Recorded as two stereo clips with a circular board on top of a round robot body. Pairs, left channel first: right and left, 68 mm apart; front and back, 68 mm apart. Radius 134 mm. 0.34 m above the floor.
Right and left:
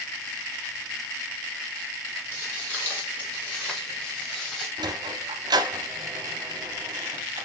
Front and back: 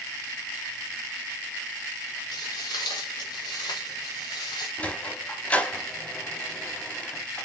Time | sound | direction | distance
2.3 | footsteps | 30° right | 3 m
4.8 | a sliding door | 70° left | 0.7 m